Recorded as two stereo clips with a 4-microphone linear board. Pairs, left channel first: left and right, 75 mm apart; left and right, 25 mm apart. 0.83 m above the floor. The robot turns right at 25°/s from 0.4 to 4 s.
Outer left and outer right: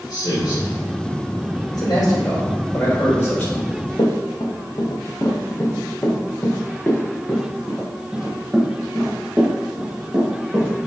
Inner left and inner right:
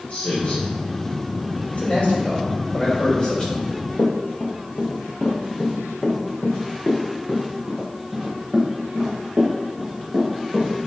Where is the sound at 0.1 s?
85° left, 2.5 m.